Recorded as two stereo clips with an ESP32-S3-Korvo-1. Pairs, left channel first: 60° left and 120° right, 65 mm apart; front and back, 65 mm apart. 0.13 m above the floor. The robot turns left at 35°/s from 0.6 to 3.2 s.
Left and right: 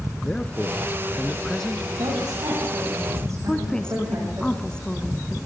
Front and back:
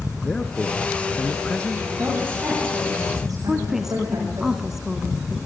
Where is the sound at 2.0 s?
115° right, 10 m; by 4.4 s 160° right, 10 m.